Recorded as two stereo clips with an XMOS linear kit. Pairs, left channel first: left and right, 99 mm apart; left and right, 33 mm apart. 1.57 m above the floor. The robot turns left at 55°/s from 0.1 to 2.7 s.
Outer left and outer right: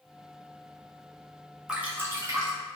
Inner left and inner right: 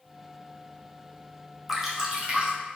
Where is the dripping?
10° right, 0.5 m; by 2.5 s 55° right, 0.5 m.